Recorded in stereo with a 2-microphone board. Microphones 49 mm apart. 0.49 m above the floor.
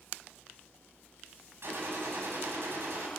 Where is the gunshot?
60° right (ahead or behind), 4 m.